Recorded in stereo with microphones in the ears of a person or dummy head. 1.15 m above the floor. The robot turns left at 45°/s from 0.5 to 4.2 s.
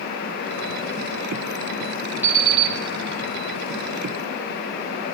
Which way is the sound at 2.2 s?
10° right (ahead or behind).